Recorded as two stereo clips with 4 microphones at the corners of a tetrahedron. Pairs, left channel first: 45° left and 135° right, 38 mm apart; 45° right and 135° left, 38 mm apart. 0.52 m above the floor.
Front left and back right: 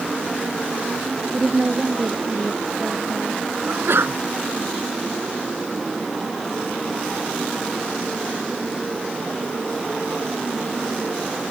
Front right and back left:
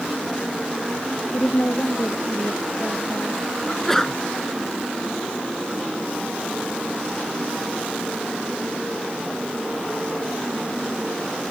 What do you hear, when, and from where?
1.3 s a woman speaking: 75° right
3.7 s a sneeze: 125° right